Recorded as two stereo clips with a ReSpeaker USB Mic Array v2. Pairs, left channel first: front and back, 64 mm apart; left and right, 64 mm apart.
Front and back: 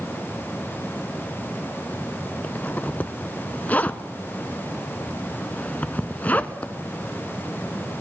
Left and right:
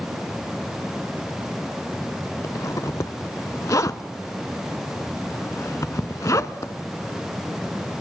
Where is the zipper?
65° left, 0.5 m.